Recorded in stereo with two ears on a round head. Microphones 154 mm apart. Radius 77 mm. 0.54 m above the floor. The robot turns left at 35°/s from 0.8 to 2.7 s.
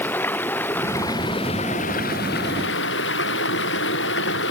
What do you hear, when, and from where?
0.0 s running water: 170° left; by 4.5 s 100° left